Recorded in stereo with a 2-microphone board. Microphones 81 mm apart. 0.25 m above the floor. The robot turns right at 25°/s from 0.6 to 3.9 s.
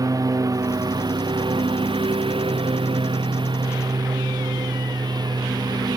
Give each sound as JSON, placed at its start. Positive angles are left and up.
{"t": 0.0, "sound": "a lawn mower", "azimuth_deg": -135}